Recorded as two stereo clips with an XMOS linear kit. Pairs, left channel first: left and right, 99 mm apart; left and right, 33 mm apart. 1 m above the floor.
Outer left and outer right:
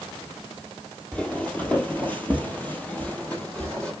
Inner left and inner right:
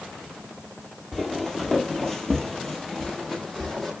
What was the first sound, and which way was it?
Footsteps, 10° left (ahead or behind).